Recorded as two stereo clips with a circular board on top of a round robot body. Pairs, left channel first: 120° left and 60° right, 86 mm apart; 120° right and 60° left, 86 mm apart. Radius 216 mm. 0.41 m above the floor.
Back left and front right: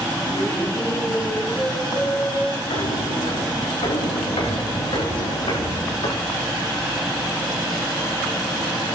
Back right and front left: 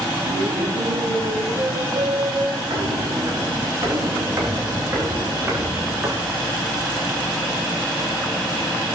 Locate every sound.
0.2 s laughter: 60° left, 6 m; by 2.6 s 65° left, 7 m
2.7 s footsteps: 110° left, 9.5 m; by 6.2 s 120° left, 13.5 m